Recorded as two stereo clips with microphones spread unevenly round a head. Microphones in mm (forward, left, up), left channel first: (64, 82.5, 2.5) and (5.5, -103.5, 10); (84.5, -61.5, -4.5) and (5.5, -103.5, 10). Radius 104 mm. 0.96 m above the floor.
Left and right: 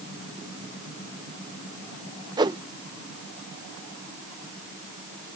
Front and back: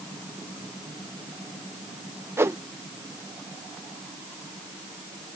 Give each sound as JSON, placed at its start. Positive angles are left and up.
{"t": 2.4, "sound": "a whoosh", "azimuth_deg": -130}